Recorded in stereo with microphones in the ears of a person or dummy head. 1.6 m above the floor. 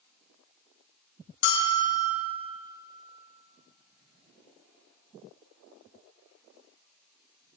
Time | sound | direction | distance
1.4 | a bell | 65° left (ahead or behind) | 1.7 m